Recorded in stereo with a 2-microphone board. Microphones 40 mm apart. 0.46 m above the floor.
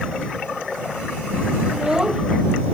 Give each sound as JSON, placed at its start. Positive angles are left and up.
{"t": 1.7, "sound": "a child speaking", "side_deg": -20}